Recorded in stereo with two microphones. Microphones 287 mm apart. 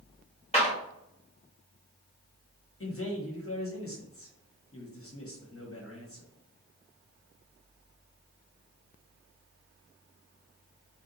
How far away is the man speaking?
About 1.0 m.